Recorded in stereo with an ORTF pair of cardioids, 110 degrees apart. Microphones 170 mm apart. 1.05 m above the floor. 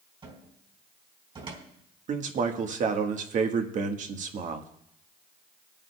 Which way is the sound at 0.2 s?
30° right.